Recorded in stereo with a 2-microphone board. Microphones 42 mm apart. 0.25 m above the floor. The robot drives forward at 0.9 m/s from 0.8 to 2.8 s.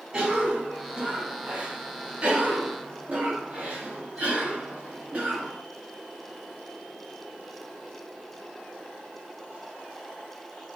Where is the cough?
25° right (ahead or behind), 2 m; by 5.6 s 35° right (ahead or behind), 1.6 m.